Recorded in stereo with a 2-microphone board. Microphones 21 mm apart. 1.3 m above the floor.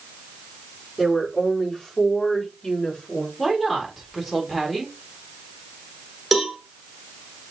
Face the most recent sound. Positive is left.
turn(degrees=-5)  # may be behind; listen again after turning